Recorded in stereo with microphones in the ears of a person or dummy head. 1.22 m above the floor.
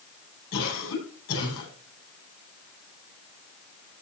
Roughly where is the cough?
Left.